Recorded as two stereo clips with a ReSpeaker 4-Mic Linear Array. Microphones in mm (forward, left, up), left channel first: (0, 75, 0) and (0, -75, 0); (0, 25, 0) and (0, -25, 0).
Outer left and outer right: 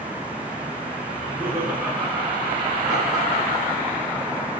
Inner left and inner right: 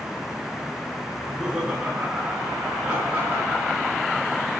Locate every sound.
1.1 s laughter: 10° right (ahead or behind), 6 m; by 4.1 s 35° right (ahead or behind), 6.5 m